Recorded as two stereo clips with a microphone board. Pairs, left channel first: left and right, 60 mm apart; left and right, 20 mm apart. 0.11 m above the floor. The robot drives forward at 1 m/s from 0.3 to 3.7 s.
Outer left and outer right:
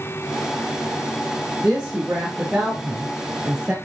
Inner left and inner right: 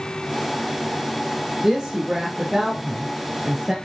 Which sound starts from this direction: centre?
A woman speaking, at 1.6 s.